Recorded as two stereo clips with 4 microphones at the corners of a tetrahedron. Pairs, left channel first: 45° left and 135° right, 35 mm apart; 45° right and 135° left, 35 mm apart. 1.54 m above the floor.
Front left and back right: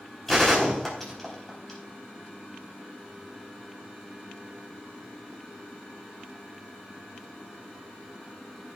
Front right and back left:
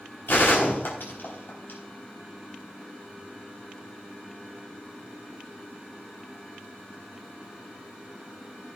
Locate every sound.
0.3 s a gunshot: 35° right, 4 m